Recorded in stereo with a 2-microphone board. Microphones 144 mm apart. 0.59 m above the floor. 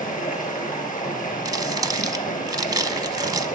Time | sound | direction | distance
0.0 | running water | 70° left (ahead or behind) | 4 m
1.4 | crumpling | 25° right (ahead or behind) | 1.2 m